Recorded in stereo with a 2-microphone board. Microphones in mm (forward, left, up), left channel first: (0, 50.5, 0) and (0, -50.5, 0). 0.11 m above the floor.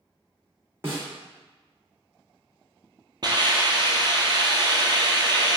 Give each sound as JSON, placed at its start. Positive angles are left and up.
{"t": 0.8, "sound": "a snare drum", "side_deg": -25, "distance_m": 1.4}
{"t": 3.2, "sound": "a hiss", "side_deg": -45, "distance_m": 0.6}